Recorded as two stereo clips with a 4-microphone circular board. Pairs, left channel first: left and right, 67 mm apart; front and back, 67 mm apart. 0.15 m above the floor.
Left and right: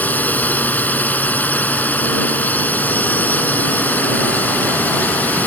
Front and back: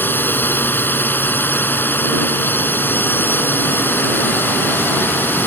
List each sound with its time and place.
0.0 s a drone: 40° left